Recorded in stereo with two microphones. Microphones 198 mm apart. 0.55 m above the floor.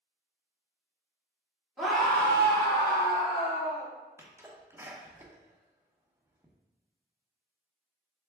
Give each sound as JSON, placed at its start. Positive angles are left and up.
{"t": 1.8, "sound": "a scream", "side_deg": 0, "distance_m": 1.8}
{"t": 4.2, "sound": "a sneeze", "side_deg": -15, "distance_m": 0.8}